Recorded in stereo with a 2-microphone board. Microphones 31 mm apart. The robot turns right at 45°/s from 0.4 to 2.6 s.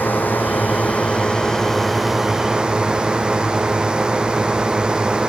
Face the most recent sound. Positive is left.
turn(degrees=-155)